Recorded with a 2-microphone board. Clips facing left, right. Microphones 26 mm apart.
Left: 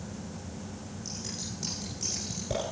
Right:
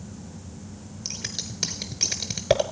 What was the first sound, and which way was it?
Scissors, 65° right (ahead or behind).